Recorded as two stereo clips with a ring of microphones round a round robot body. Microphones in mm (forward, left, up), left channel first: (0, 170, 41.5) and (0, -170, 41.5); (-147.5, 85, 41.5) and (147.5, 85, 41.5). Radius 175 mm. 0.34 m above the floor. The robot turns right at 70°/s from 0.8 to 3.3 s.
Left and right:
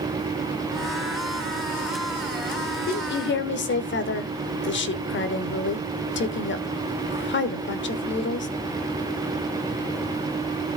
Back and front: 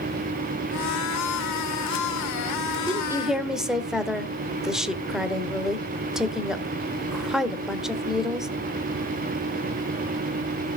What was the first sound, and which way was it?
A woman speaking, 55° left.